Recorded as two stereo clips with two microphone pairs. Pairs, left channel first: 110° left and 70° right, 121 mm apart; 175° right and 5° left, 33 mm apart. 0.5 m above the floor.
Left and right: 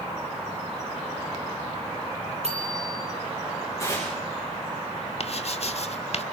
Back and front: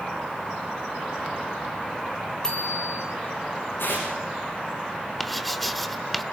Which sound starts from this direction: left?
Writing, at 5.2 s.